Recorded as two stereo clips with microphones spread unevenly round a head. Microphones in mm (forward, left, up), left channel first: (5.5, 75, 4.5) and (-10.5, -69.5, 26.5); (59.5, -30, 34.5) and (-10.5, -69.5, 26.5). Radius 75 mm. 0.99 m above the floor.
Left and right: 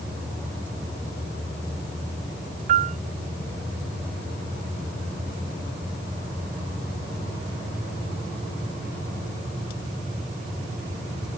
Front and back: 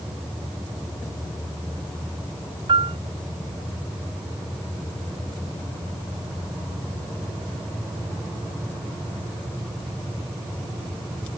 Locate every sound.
2.7 s a piano: 135° right